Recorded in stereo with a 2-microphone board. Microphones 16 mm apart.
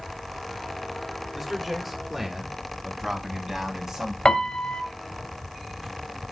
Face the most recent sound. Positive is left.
turn(degrees=60)  # may be behind; listen again after turning